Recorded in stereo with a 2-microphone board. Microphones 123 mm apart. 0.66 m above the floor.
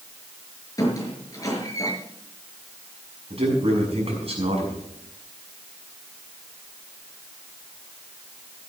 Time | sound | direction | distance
0.8 | a squeak | 25° left (ahead or behind) | 5.5 m
3.3 | a man speaking | 55° right (ahead or behind) | 6.5 m